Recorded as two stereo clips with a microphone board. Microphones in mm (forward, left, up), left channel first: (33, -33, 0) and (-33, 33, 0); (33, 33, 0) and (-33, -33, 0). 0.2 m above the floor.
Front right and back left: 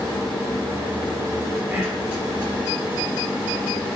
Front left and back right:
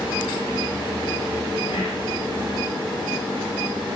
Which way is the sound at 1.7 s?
65° left.